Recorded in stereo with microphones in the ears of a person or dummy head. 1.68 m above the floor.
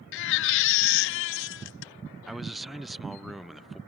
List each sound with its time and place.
0.1 s a baby crying: 60° left (ahead or behind)
2.3 s a man speaking: centre (ahead or behind)